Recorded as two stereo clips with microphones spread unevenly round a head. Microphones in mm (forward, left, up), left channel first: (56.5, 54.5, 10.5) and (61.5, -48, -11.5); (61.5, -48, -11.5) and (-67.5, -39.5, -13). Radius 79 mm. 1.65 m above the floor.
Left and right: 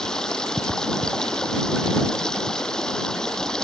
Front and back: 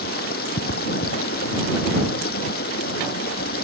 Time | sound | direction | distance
0.0 | running water | 10° left | ?